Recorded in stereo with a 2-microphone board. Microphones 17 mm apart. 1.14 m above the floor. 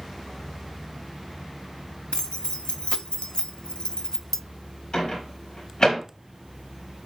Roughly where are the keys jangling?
Left.